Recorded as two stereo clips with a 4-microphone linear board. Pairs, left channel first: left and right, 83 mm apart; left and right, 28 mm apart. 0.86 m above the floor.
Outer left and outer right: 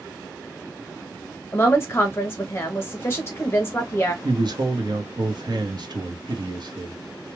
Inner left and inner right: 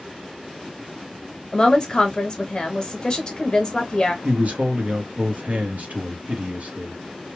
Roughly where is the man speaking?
Right.